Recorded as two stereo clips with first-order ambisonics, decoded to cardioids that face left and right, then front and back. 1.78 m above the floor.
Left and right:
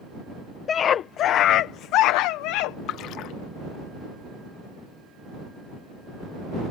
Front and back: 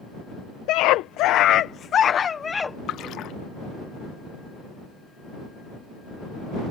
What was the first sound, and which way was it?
A scream, 30° left.